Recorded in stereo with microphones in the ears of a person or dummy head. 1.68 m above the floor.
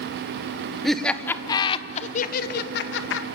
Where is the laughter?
5° left (ahead or behind), 1.3 m; by 3.2 s 80° left, 1.5 m.